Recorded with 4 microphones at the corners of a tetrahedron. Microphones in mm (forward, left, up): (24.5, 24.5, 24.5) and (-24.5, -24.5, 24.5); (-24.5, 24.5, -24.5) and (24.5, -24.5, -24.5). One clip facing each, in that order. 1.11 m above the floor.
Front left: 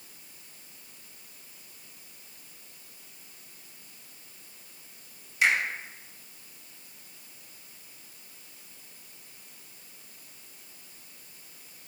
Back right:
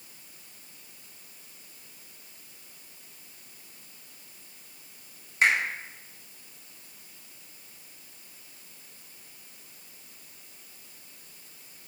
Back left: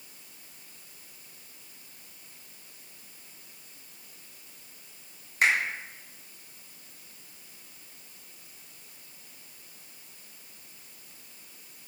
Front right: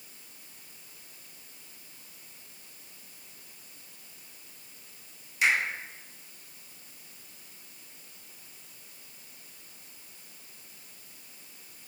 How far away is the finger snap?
About 2.5 m.